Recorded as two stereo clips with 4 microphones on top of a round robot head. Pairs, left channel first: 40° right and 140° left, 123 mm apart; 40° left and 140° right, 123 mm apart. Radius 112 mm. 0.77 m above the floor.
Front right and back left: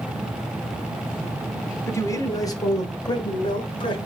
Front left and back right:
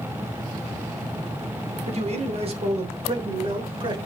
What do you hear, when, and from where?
1.9 s a man speaking: 110° right, 3 m; by 4.0 s 90° right, 4 m